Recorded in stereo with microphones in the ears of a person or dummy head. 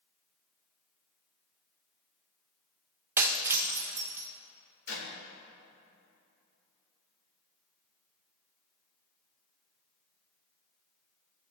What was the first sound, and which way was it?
Breaking glass, 10° right (ahead or behind).